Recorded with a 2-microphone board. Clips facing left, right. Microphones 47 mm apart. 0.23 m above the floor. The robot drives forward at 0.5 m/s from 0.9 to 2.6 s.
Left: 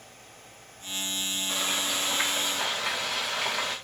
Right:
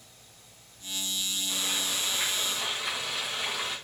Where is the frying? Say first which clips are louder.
Left 4 dB; 85° left, 8 m; by 3.8 s 80° left, 8 m.